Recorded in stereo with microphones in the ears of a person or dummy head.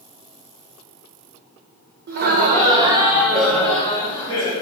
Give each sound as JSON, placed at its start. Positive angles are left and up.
{"t": 2.1, "sound": "laughter", "side_deg": -60, "distance_m": 1.0}